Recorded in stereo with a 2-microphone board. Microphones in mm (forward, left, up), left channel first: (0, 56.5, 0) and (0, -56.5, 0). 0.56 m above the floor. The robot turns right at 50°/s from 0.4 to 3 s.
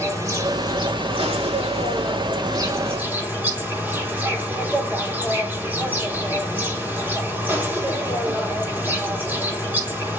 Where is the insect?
145° right, 4 m; by 10.2 s 15° right, 4 m.